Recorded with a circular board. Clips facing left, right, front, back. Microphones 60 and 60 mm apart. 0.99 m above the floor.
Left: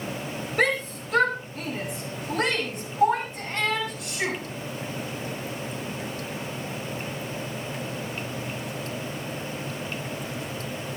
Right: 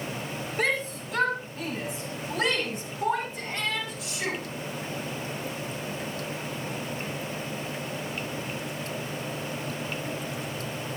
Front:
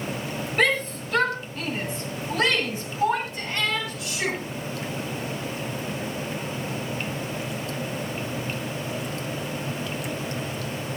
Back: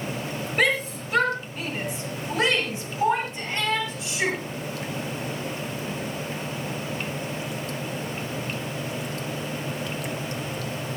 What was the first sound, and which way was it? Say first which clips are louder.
A shout: left 4 dB, front 1 dB; 100° left.